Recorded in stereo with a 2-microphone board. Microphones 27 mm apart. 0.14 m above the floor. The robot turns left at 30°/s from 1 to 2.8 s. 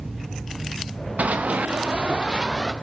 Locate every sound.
1.2 s running footsteps: 85° right, 1.3 m; by 2.7 s 15° right (ahead or behind), 1.8 m